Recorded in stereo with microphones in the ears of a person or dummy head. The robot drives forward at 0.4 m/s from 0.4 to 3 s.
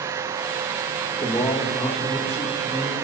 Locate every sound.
1.2 s a man speaking: 20° left (ahead or behind), 1.6 m; by 3.0 s 15° left (ahead or behind), 2.5 m